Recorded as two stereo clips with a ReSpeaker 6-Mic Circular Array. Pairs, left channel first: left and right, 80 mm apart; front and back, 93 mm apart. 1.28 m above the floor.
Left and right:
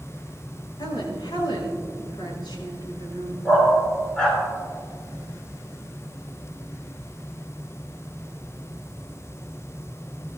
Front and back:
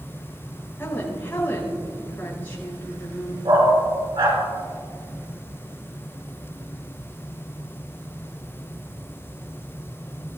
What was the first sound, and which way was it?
A woman speaking, 70° left.